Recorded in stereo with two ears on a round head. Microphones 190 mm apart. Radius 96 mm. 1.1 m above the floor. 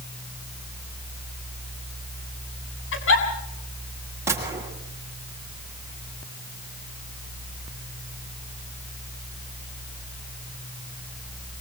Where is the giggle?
65° left (ahead or behind), 7 m.